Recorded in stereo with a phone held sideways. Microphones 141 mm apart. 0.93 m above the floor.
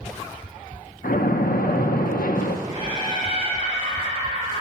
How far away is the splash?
About 0.7 m.